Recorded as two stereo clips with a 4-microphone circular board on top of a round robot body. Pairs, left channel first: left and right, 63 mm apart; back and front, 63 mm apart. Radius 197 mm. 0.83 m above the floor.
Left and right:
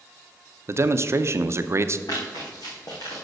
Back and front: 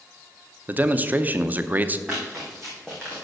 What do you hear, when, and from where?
0.7 s a man speaking: 60° right, 0.8 m
2.1 s running footsteps: 80° left, 2.5 m; by 3.2 s 110° left, 2.5 m